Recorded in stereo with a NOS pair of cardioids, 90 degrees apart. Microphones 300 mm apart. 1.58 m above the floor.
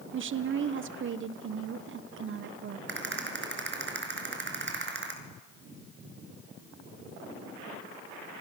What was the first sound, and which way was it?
A woman speaking, 40° right.